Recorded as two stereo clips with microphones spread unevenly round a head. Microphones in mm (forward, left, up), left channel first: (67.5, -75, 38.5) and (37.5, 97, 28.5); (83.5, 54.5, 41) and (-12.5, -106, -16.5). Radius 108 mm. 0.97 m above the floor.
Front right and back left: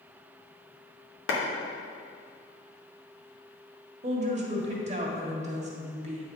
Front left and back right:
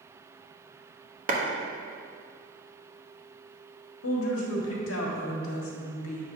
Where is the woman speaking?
50° left, 1.6 m.